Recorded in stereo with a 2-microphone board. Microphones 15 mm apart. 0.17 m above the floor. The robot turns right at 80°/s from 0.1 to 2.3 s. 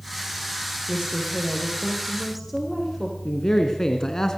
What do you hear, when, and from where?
0.9 s a woman speaking: 130° right, 7 m; by 3.1 s 15° right, 7 m
3.2 s a man speaking: 30° left (ahead or behind), 2 m